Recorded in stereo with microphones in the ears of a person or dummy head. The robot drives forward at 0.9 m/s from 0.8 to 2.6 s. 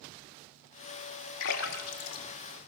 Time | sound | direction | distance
1.4 | a splash | 75° left (ahead or behind) | 1.9 m